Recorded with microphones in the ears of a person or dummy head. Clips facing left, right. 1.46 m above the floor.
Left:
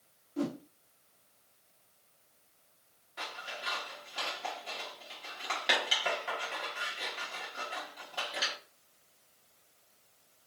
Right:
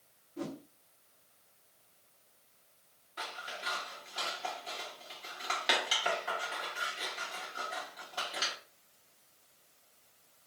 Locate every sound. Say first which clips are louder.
0.4 s a whoosh: left 6 dB; 65° left (ahead or behind), 0.5 m
3.2 s scissors: even; centre (ahead or behind), 1.4 m